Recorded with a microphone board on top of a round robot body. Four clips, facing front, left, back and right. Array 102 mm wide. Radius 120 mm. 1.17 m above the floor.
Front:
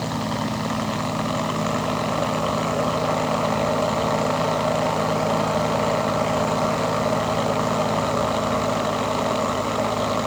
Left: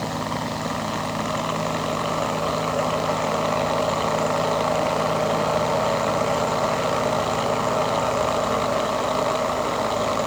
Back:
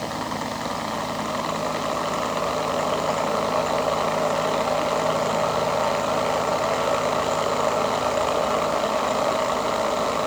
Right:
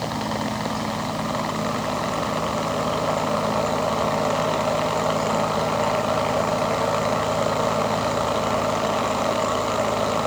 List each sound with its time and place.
Only background noise.